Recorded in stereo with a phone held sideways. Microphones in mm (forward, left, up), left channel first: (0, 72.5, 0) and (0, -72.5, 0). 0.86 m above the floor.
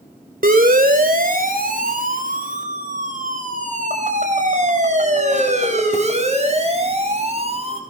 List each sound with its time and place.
0.4 s a siren: 80° right, 2.5 m; by 7.8 s 45° right (ahead or behind), 5.5 m